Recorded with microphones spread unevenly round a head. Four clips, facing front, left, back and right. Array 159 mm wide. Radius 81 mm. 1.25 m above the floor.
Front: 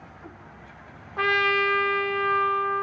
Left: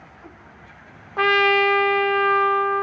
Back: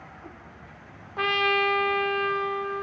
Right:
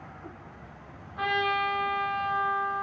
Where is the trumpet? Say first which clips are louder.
Left 9 dB, front 1 dB; 95° left, 0.9 m.